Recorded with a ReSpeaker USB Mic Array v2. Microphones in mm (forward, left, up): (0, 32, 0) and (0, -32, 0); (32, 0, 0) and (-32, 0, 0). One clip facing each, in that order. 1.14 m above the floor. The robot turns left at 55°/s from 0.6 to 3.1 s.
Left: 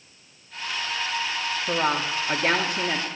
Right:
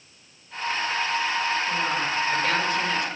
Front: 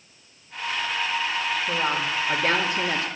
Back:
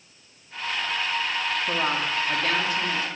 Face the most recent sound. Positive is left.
turn(degrees=35)